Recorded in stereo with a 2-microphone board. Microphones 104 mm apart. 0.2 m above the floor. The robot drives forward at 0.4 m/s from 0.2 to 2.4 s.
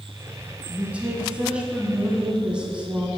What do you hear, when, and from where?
0.7 s a woman speaking: 15° right (ahead or behind), 1.2 m; by 3.1 s 10° right (ahead or behind), 1.5 m